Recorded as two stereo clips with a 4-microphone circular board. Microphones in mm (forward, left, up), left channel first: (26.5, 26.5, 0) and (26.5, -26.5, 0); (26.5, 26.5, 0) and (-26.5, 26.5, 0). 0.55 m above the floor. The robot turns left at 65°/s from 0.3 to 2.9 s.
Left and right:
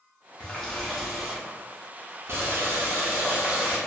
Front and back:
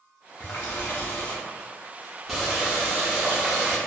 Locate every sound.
0.4 s a running tap: 35° left, 0.7 m; by 3.8 s 130° right, 0.7 m